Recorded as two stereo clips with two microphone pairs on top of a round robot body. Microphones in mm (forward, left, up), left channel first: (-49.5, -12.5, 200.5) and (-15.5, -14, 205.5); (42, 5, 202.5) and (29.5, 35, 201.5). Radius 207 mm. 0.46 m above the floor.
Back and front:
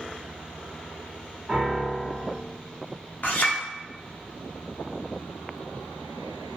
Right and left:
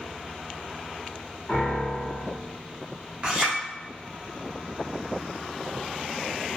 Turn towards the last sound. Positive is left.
turn(degrees=170)